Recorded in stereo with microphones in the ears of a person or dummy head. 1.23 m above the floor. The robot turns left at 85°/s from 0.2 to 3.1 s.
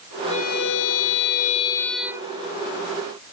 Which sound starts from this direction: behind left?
A violin, at 0.3 s.